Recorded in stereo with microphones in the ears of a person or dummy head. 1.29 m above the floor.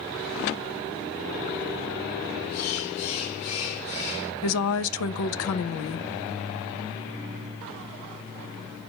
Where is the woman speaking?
70° left (ahead or behind), 0.6 m.